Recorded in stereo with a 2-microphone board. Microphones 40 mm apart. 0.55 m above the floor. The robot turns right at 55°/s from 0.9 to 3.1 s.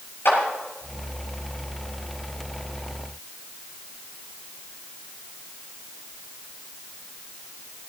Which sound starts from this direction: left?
A clap, at 0.2 s.